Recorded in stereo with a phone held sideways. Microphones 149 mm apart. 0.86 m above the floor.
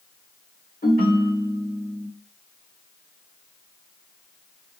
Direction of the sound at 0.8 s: 80° left.